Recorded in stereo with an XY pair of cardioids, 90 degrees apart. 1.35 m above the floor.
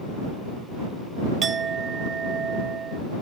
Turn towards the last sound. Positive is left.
turn(degrees=-55)